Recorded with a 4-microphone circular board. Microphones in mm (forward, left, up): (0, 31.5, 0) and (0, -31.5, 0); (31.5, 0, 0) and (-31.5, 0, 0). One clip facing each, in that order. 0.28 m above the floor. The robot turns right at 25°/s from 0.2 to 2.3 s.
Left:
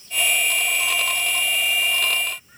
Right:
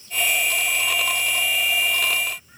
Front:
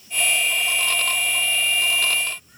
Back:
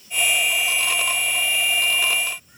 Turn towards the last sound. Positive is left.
No sound to turn to.